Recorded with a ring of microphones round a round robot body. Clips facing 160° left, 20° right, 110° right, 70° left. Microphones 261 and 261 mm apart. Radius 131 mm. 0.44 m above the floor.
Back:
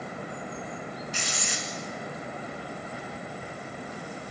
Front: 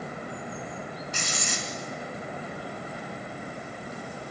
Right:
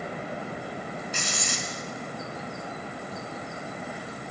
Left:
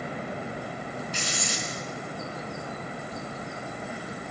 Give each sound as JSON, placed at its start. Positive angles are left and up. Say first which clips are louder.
{"t": 1.1, "sound": "writing", "louder": "front 1 dB, left 1 dB", "azimuth_deg": -70, "distance_m": 3.5}